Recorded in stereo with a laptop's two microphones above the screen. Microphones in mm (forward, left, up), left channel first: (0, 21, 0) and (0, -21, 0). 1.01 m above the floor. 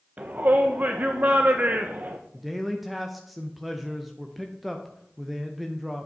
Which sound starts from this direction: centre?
A man speaking, at 2.3 s.